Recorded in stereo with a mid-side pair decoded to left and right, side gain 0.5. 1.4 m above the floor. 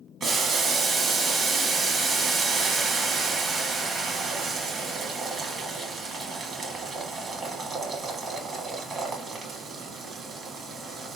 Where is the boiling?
45° right, 1.3 m.